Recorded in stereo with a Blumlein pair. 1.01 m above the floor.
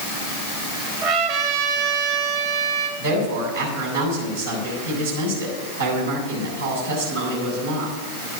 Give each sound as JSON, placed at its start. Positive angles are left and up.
{"t": 1.0, "sound": "a trumpet", "azimuth_deg": -45, "distance_m": 2.0}
{"t": 3.0, "sound": "a woman speaking", "azimuth_deg": -70, "distance_m": 6.5}